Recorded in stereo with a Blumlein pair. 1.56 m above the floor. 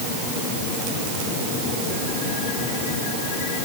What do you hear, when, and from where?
Only background noise.